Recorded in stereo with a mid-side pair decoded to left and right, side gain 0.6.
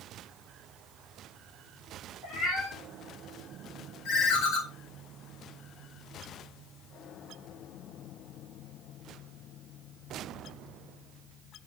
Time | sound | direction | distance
2.2 | a cat meowing | 45° left | 5 m
4.0 | a ringtone | 70° left | 3 m